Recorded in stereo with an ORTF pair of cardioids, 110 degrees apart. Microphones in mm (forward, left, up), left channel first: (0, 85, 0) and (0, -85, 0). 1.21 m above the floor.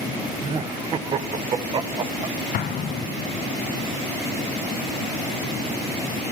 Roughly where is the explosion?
Ahead left.